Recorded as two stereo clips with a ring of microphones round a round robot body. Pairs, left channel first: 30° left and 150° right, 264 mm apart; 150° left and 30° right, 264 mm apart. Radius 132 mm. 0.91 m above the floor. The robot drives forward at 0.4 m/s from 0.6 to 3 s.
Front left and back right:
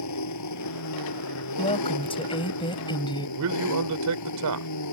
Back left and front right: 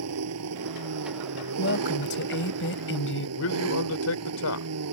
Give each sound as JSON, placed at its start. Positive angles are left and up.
{"t": 0.0, "sound": "an engine running", "azimuth_deg": 5}
{"t": 1.6, "sound": "a woman speaking", "azimuth_deg": 100}
{"t": 3.4, "sound": "a man speaking", "azimuth_deg": -175}